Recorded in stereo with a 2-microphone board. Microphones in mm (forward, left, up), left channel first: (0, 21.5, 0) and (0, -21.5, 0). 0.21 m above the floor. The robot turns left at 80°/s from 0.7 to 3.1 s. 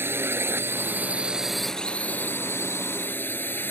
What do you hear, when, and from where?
0.0 s a drone: 110° right; by 3.7 s 60° left